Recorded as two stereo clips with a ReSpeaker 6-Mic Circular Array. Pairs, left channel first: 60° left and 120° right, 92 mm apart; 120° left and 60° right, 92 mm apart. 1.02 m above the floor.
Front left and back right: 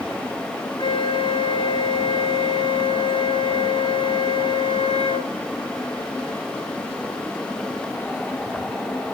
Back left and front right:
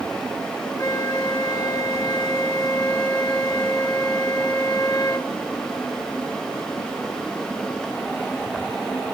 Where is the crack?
No crack in this recording.